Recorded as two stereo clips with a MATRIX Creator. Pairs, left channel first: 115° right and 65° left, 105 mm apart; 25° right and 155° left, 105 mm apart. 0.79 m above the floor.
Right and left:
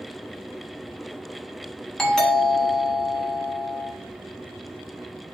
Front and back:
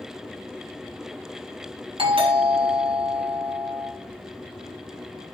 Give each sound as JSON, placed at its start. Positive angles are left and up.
{"t": 2.0, "sound": "a doorbell", "azimuth_deg": 165, "distance_m": 2.5}